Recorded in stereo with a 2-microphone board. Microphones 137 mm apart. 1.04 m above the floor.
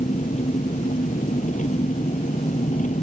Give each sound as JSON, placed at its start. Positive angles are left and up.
{"t": 0.0, "sound": "an engine running", "side_deg": 65}